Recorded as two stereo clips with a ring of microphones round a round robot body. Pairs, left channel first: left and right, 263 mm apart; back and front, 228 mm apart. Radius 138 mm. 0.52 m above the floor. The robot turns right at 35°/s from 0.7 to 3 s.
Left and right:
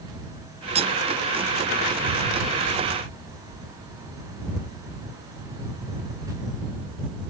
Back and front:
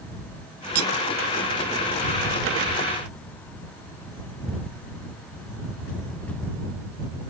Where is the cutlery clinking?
25° right; by 0.9 s 20° right.